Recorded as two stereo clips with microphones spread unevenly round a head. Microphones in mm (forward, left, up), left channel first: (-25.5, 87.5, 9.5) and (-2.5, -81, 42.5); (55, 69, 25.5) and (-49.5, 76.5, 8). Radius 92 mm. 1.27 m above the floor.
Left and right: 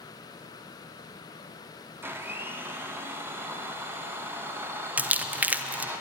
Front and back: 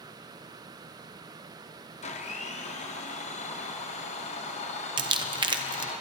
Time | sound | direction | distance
2.0 | a blender | 5° right | 0.9 m
5.0 | crumpling | 170° right | 0.7 m